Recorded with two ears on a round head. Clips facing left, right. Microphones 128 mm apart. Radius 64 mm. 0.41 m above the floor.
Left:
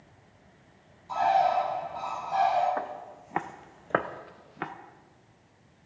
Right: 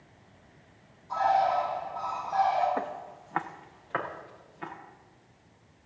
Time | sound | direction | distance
1.1 | a bird | 70° left (ahead or behind) | 6.5 m
2.8 | footsteps | 15° right (ahead or behind) | 1.3 m